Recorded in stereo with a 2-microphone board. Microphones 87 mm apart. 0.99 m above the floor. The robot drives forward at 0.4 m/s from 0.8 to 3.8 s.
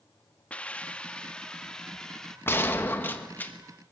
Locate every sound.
0.5 s a hiss: 15° left (ahead or behind), 0.6 m; by 2.4 s 5° left (ahead or behind), 1.2 m
2.5 s a gunshot: 25° left (ahead or behind), 1.3 m; by 3.5 s 20° left (ahead or behind), 1.6 m